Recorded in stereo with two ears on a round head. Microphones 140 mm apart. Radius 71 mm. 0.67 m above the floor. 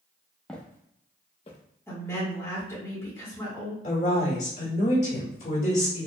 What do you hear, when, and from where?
0.5 s footsteps: 5° left (ahead or behind), 0.8 m; by 1.6 s 45° left (ahead or behind), 1.1 m
1.9 s a woman speaking: 15° left (ahead or behind), 1.5 m
3.8 s a woman speaking: 45° left (ahead or behind), 1.9 m